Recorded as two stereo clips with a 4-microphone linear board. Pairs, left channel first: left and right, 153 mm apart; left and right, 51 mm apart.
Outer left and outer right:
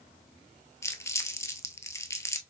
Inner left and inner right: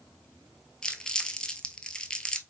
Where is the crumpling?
20° left (ahead or behind), 0.8 m.